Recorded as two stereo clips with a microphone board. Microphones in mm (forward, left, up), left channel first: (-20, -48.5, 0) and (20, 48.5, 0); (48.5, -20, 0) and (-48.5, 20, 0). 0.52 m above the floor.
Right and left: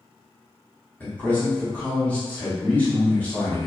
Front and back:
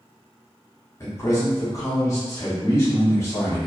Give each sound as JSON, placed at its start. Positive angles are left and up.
{"t": 1.0, "sound": "a man speaking", "azimuth_deg": -55, "distance_m": 0.9}